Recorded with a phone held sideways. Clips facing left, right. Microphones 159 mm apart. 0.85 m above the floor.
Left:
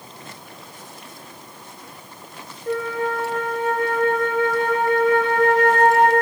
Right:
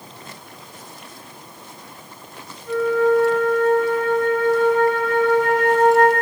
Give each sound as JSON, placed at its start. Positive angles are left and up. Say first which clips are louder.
{"t": 2.7, "sound": "a flute", "louder": "right 7 dB", "side_deg": 60, "distance_m": 0.7}